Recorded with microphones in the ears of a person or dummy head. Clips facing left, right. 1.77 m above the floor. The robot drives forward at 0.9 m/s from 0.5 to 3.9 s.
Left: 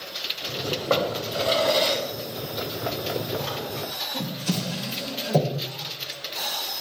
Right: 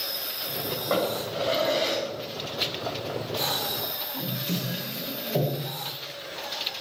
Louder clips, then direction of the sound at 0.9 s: Left 1 dB; 55° left (ahead or behind).